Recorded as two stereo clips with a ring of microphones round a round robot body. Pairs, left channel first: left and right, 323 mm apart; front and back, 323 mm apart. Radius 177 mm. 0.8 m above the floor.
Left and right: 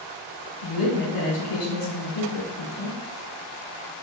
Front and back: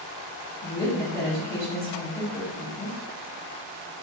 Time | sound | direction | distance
0.6 | a woman speaking | 65° left | 2.0 m